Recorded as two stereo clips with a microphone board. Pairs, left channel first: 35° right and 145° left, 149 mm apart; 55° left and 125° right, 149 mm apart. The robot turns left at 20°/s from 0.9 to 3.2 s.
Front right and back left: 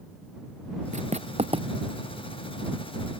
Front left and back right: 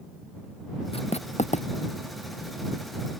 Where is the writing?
105° left; by 1.7 s 90° left.